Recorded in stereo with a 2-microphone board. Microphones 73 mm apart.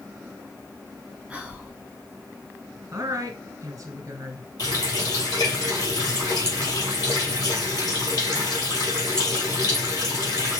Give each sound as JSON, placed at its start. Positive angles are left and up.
{"t": 1.3, "sound": "whispering", "side_deg": -15, "distance_m": 1.5}
{"t": 2.9, "sound": "a woman speaking", "side_deg": -45, "distance_m": 1.5}
{"t": 4.6, "sound": "a running tap", "side_deg": 65, "distance_m": 2.5}